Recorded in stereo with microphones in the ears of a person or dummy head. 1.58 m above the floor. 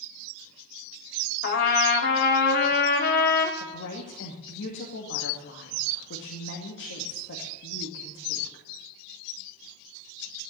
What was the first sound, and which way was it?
A trumpet, 45° left (ahead or behind).